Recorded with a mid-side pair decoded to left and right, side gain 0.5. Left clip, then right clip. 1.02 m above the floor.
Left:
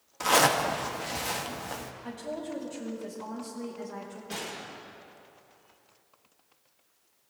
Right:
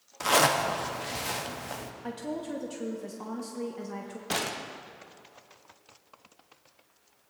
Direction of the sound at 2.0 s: 50° right.